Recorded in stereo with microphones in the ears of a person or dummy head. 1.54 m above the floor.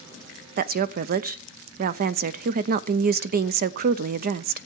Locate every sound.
0.6 s a woman speaking: 45° right (ahead or behind), 0.5 m